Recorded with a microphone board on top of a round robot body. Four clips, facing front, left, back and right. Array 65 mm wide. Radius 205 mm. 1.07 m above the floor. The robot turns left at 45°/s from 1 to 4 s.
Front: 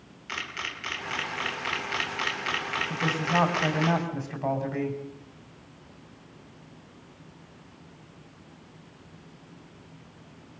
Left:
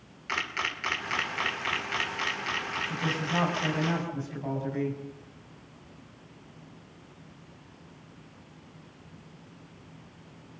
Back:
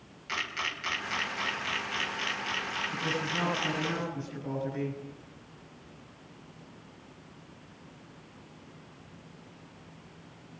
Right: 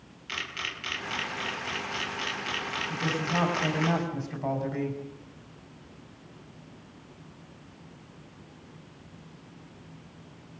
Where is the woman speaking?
25° left, 5.5 m; by 5.0 s 25° right, 5.5 m.